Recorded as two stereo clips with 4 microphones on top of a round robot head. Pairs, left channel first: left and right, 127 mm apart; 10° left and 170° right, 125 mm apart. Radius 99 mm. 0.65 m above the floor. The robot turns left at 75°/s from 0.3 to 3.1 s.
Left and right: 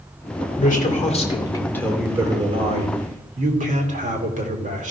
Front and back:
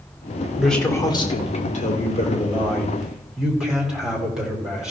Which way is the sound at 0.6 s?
105° left.